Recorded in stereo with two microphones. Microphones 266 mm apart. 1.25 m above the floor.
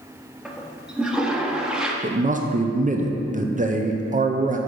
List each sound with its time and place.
0.5 s a toilet flushing: 5° right (ahead or behind), 0.7 m
2.0 s a man speaking: 30° right (ahead or behind), 0.5 m